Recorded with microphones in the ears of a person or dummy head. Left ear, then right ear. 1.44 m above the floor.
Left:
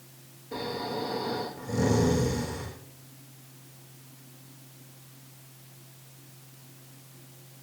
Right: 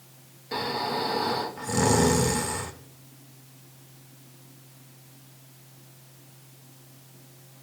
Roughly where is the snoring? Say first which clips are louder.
Right 5 dB; right.